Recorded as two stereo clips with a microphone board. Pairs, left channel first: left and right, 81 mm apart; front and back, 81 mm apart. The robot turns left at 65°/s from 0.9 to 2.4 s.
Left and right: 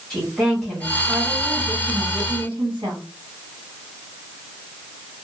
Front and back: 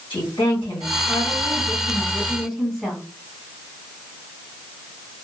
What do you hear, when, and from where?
0.1 s a woman speaking: 5° left, 1.6 m; by 3.0 s 90° right, 1.6 m